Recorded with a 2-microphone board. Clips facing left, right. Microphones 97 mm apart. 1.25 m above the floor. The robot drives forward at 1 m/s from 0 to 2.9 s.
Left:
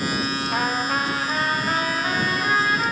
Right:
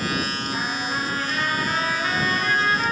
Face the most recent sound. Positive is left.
turn(degrees=15)  # may be behind; listen again after turning